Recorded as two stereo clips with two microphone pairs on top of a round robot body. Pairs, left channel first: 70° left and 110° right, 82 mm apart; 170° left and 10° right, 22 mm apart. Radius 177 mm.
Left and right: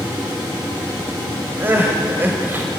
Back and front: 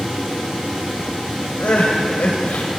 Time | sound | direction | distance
1.6 | crying | straight behind | 1.5 m